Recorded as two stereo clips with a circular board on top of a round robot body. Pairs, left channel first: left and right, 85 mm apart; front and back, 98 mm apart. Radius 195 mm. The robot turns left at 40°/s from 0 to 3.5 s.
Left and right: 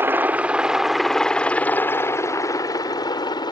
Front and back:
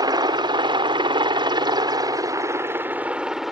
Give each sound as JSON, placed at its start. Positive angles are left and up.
{"t": 0.0, "sound": "a helicopter", "azimuth_deg": -145}